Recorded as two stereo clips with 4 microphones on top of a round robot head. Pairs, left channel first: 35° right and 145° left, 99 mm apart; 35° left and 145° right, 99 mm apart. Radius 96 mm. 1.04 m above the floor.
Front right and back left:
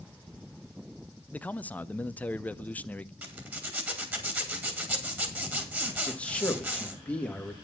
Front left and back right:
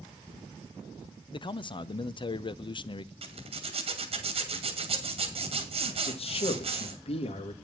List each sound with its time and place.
1.3 s a man speaking: 35° left, 0.7 m
3.2 s a zipper: 145° right, 2.5 m
6.1 s a man speaking: 40° left, 1.6 m